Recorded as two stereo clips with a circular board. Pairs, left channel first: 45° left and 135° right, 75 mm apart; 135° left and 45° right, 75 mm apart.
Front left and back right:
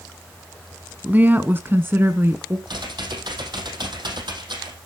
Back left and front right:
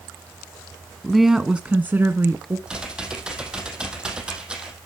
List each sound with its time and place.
1.0 s a woman speaking: 150° right, 1.1 m; by 2.6 s 85° right, 1.7 m
2.7 s typing on a keyboard: 125° right, 3.5 m